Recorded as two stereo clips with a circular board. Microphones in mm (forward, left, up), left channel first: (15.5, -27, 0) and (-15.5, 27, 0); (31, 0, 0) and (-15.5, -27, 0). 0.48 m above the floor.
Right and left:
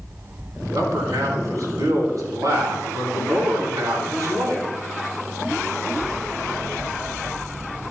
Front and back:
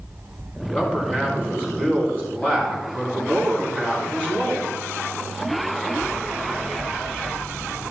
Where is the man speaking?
100° left, 4.5 m.